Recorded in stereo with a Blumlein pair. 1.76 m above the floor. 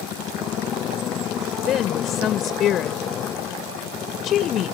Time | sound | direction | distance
0.0 | a motorcycle | 30° left | ?
1.7 | a woman speaking | 30° left | ?